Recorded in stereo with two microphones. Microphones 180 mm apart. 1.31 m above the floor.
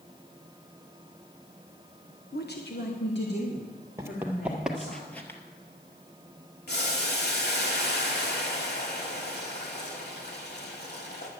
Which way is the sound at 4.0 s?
15° right (ahead or behind).